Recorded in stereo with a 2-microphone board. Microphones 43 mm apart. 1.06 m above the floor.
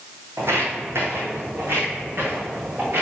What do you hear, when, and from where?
0.4 s footsteps: 60° right (ahead or behind), 2.5 m; by 3.0 s 50° right (ahead or behind), 4 m